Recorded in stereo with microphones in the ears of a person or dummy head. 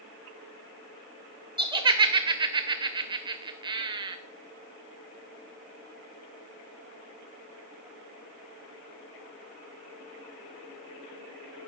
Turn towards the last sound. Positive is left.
turn(degrees=-25)  # may be behind; listen again after turning